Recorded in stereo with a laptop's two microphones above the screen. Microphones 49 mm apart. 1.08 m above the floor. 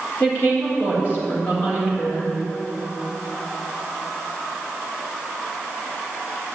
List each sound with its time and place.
0.2 s a woman speaking: 40° left (ahead or behind), 4 m